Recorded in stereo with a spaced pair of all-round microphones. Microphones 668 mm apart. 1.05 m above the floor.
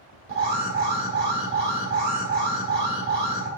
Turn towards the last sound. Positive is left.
turn(degrees=-65)  # may be behind; listen again after turning